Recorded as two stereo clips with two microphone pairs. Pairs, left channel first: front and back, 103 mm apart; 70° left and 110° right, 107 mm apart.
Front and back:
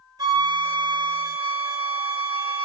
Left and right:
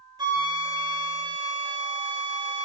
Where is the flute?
145° right, 1.5 m.